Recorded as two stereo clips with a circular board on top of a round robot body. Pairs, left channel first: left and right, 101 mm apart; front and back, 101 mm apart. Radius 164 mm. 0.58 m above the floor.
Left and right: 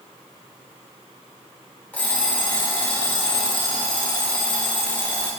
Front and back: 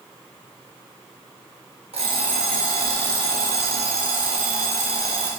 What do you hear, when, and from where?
1.9 s an alarm clock: 165° left, 1.7 m